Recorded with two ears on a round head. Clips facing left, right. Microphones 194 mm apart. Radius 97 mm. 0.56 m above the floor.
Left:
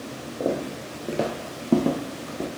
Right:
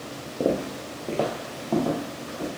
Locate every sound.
0.4 s footsteps: 20° right (ahead or behind), 0.7 m; by 2.5 s 55° left (ahead or behind), 0.9 m